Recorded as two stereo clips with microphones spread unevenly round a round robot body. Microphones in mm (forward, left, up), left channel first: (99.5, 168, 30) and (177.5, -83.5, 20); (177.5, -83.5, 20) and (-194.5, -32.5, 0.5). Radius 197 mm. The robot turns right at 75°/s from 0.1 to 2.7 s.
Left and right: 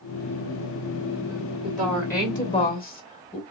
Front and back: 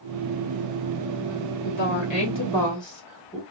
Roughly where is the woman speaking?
Ahead.